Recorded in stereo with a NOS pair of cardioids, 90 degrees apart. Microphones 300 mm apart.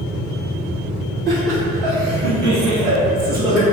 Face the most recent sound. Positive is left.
turn(degrees=-80)